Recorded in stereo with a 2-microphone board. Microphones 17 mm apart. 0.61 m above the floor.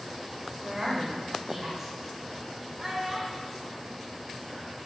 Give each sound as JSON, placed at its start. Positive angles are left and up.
{"t": 0.6, "sound": "a woman speaking", "side_deg": -25, "distance_m": 2.5}
{"t": 2.8, "sound": "a child speaking", "side_deg": -20, "distance_m": 2.5}